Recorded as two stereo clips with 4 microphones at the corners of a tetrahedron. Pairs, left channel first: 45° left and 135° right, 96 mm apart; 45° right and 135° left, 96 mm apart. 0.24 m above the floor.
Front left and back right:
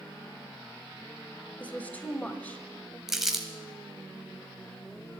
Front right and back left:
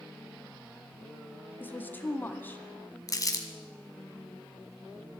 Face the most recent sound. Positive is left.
turn(degrees=-50)